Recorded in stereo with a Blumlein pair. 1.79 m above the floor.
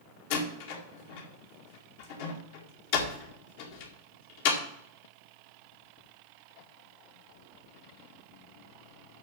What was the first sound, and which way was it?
A door slam, 50° left.